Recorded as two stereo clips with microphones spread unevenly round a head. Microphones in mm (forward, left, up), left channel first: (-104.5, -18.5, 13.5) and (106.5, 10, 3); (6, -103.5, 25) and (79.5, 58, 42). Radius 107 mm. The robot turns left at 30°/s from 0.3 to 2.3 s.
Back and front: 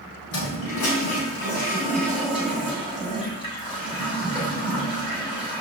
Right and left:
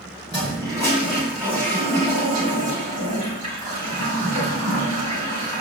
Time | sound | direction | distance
0.3 | a toilet flushing | straight behind | 4 m